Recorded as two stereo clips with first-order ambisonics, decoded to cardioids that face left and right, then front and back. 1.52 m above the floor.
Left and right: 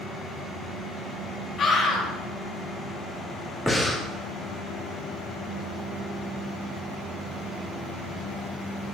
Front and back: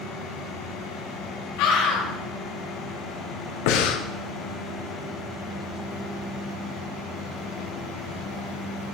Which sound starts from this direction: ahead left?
A scream, at 1.6 s.